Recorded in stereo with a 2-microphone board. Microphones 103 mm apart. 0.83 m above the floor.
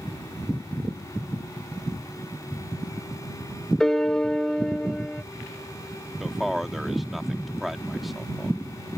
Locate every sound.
3.8 s a piano: 5° left (ahead or behind)
6.2 s a man speaking: centre (ahead or behind)